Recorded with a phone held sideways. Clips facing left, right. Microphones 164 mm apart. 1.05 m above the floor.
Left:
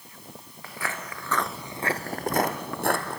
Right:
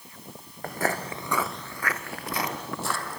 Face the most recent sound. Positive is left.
turn(degrees=60)  # may be behind; listen again after turning